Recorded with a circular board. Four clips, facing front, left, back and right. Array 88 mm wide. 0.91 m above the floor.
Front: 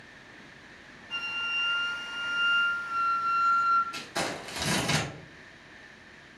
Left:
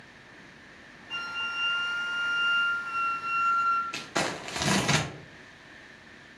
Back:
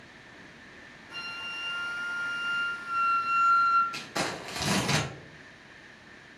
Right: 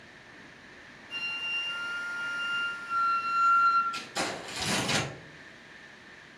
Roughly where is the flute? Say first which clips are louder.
Left 6 dB, front 5 dB; left.